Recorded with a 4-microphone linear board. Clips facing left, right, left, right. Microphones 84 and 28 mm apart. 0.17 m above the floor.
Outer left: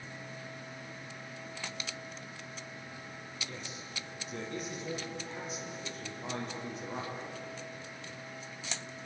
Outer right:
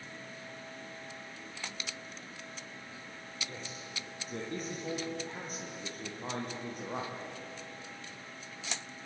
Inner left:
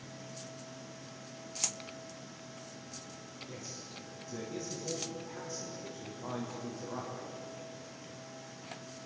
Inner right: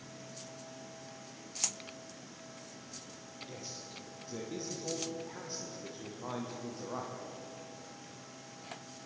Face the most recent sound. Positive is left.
turn(degrees=-55)  # may be behind; listen again after turning